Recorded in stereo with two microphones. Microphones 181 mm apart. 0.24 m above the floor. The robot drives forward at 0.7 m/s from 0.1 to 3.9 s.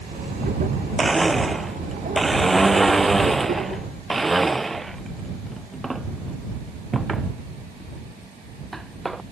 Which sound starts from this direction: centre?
A blender, at 1.0 s.